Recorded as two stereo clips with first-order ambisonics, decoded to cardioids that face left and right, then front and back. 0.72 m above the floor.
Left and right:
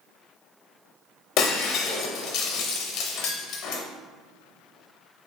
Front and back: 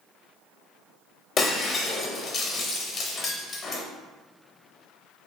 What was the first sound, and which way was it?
Breaking glass, 65° left.